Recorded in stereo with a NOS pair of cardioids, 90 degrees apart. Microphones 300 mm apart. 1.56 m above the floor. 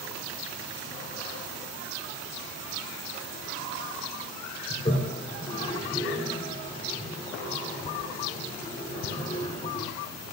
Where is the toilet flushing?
25° left, 4.5 m.